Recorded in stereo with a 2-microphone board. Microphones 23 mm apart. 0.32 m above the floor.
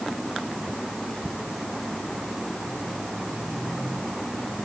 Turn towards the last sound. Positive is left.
No sound to turn to.